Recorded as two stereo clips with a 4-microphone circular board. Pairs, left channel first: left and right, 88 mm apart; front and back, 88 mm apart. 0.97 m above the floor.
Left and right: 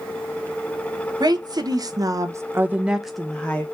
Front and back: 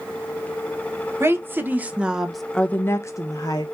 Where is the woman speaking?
120° right, 1.1 m; by 3.6 s 20° left, 0.8 m.